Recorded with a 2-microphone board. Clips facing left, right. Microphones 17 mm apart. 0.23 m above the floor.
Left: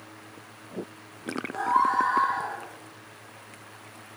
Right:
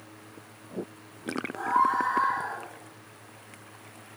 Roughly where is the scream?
Left.